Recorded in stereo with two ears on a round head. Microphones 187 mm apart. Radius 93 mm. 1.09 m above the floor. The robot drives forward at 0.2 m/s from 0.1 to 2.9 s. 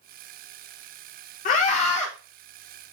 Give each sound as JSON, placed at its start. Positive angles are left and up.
{"t": 1.4, "sound": "a scream", "side_deg": 35, "distance_m": 0.6}